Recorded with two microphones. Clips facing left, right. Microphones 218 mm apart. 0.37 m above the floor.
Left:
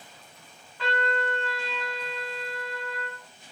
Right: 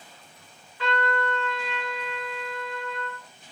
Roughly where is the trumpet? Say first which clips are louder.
Right 2 dB; left.